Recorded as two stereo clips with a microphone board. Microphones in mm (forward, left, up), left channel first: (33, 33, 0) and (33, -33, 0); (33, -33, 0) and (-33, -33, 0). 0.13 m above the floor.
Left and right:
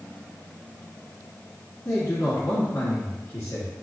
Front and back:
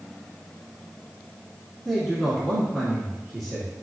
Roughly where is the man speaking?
Left.